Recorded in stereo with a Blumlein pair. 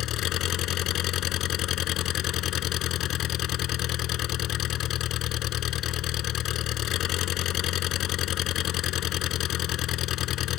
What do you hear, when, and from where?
0.0 s an engine running: 35° left